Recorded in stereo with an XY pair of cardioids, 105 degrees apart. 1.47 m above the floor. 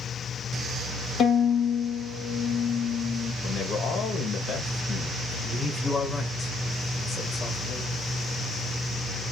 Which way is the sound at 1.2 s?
65° left.